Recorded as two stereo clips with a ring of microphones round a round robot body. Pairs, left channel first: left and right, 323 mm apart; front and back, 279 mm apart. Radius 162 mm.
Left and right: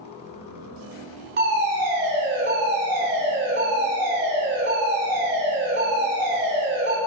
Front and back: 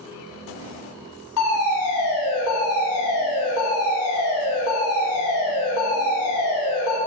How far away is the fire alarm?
About 5.5 m.